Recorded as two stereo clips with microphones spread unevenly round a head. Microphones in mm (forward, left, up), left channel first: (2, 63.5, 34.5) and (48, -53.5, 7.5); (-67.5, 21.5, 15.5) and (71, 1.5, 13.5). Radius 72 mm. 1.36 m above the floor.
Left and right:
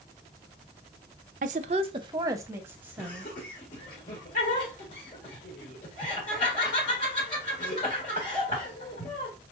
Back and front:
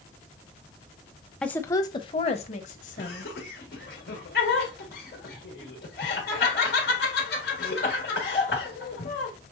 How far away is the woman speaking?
About 0.6 m.